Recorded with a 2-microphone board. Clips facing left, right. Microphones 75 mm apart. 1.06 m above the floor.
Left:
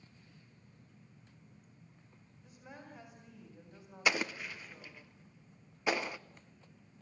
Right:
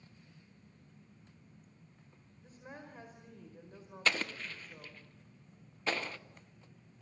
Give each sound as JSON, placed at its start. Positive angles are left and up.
{"t": 2.4, "sound": "a woman speaking", "side_deg": -35, "distance_m": 5.0}
{"t": 4.0, "sound": "an explosion", "side_deg": 10, "distance_m": 0.8}